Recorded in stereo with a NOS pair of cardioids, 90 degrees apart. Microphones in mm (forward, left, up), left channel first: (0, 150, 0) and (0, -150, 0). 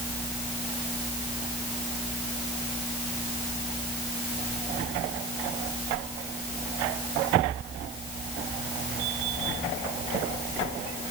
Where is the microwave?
I don't hear a microwave.